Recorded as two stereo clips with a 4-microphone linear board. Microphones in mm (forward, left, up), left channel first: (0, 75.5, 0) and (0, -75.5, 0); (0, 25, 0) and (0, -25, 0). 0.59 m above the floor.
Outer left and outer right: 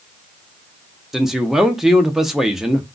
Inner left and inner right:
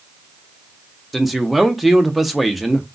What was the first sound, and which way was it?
A man speaking, centre (ahead or behind).